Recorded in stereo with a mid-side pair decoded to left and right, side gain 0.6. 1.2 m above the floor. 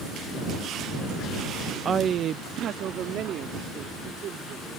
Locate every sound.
1.9 s a woman speaking: 35° right; by 4.7 s 55° right